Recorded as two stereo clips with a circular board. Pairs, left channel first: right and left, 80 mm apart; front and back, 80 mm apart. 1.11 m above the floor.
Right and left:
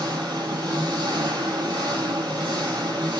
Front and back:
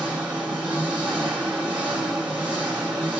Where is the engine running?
105° left, 1.3 m.